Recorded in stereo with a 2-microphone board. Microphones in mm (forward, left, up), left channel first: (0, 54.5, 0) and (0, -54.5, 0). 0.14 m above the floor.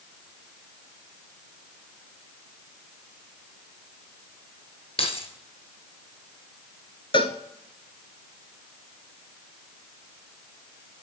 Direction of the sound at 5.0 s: 60° left (ahead or behind).